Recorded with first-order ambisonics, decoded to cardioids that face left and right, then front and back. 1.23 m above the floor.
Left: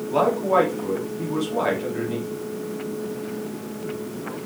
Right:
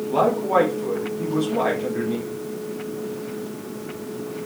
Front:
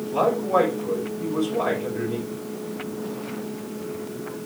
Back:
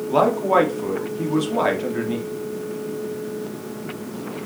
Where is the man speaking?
175° left, 2 m.